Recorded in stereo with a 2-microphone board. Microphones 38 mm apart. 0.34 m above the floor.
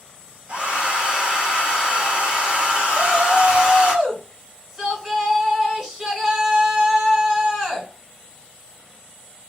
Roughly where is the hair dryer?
Right.